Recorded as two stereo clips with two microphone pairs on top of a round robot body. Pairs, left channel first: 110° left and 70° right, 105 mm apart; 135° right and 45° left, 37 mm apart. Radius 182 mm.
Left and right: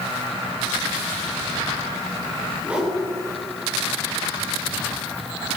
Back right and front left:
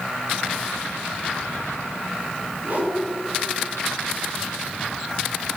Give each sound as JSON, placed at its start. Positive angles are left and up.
{"t": 2.6, "sound": "a whoosh", "azimuth_deg": 5, "distance_m": 7.5}